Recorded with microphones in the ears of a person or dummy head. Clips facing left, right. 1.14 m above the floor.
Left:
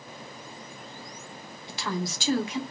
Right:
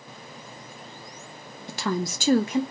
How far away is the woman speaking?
About 0.7 m.